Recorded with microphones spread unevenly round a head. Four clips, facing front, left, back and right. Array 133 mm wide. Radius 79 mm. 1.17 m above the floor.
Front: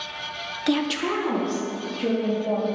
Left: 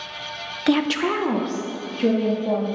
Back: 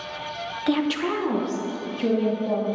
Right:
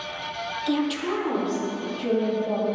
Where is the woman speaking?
70° left, 0.6 m; by 2.6 s 95° left, 2.5 m.